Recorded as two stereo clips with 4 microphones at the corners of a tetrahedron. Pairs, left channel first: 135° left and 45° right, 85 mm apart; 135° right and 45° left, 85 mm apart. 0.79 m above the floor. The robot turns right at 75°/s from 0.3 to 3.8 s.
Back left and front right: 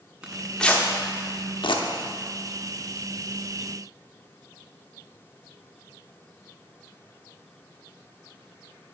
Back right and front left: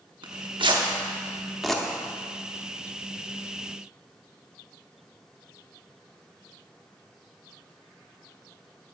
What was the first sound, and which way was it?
Tearing paper, 30° left.